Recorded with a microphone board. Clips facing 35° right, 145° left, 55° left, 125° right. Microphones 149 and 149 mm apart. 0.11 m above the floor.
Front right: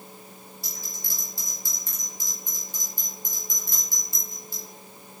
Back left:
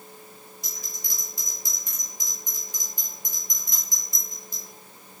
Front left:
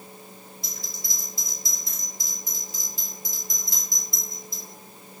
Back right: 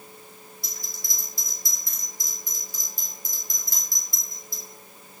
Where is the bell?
95° left, 1.5 m.